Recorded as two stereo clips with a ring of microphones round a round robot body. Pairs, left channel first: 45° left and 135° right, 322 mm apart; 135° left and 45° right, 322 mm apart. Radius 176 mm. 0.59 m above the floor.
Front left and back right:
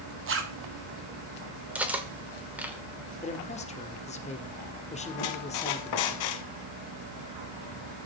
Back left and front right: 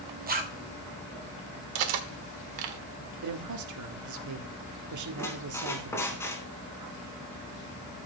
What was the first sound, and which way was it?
A zipper, 100° right.